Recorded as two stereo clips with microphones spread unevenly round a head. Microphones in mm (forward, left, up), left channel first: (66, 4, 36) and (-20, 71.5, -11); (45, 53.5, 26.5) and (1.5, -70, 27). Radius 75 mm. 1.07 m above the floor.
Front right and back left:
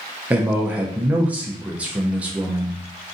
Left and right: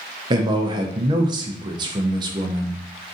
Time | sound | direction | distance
0.3 | a man speaking | 160° right | 0.5 m